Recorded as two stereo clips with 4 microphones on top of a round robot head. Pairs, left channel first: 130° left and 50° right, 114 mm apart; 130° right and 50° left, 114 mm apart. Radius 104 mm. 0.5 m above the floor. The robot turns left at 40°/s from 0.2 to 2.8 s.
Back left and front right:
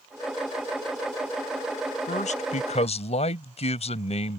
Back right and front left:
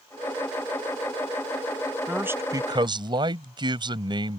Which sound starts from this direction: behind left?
A man speaking, at 2.1 s.